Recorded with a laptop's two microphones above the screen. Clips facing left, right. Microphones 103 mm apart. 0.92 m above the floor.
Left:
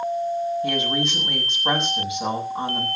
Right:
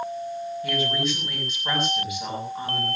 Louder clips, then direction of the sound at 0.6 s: Left 2 dB; 30° left (ahead or behind).